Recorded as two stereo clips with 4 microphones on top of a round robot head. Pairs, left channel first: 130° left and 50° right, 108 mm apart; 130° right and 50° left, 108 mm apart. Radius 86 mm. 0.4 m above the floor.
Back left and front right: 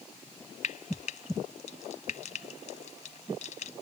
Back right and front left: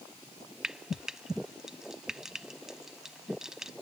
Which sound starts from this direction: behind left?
Frying, at 0.6 s.